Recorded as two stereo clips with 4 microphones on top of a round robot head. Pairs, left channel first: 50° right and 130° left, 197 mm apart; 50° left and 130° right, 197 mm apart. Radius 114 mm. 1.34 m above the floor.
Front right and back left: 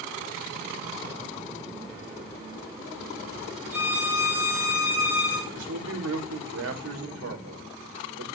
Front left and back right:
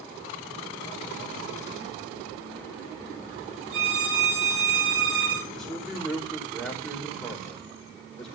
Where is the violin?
150° right, 4 m.